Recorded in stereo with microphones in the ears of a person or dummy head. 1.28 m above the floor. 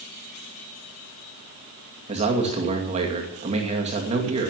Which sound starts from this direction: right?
A man speaking, at 2.1 s.